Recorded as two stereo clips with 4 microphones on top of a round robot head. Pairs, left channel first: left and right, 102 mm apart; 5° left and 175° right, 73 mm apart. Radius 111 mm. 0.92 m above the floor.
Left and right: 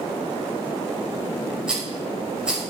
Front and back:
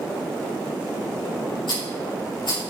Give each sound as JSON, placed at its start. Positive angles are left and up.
{"t": 1.7, "sound": "a rattle", "azimuth_deg": -10, "distance_m": 6.0}